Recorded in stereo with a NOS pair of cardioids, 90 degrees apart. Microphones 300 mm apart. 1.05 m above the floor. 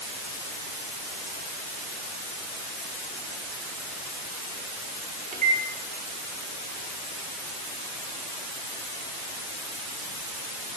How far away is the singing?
No singing in this recording.